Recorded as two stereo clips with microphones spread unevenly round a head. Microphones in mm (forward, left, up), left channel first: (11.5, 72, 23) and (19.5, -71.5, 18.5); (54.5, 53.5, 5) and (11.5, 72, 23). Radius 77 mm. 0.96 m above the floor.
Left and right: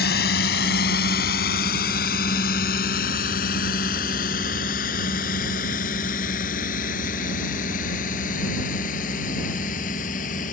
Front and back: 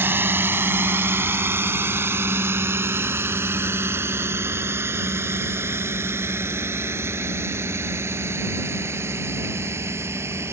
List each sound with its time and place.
0.0 s a drone: 120° left; by 10.5 s 135° left